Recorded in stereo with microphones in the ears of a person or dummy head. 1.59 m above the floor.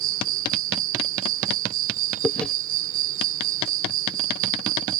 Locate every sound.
0.0 s an insect: 70° right (ahead or behind)
2.2 s chewing: 5° left (ahead or behind)